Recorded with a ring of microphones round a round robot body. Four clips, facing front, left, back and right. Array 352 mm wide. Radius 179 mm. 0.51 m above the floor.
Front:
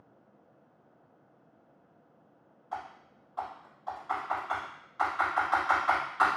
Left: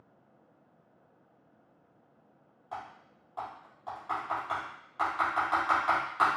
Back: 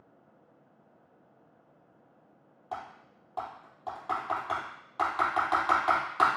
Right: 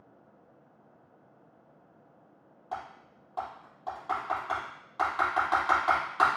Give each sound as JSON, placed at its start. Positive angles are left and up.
{"t": 2.7, "sound": "typing on a keyboard", "azimuth_deg": -150, "distance_m": 3.0}